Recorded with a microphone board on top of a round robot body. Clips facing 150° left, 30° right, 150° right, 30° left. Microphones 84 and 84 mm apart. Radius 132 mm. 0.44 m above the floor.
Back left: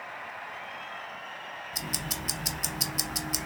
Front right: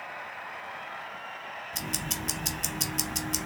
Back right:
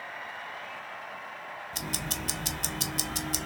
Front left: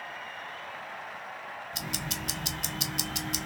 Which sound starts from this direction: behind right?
Ticking, at 1.7 s.